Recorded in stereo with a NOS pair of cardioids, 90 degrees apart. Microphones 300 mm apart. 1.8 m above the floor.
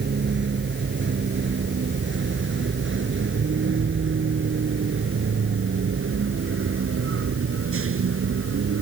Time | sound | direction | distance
0.0 | a vehicle | 40° right | ?